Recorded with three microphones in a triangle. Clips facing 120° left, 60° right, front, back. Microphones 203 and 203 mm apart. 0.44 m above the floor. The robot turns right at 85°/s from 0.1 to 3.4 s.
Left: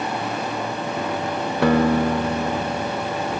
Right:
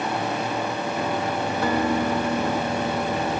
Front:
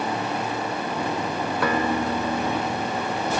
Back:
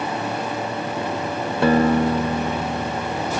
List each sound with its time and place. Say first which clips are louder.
1.6 s a guitar: left 7 dB, back 9 dB; 115° left, 0.6 m; by 3.4 s 95° right, 0.6 m